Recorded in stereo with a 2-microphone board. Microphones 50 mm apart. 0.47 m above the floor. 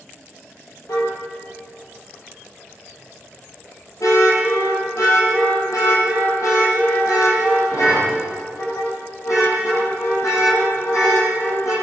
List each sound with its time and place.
0.9 s a car horn: 80° left, 7.5 m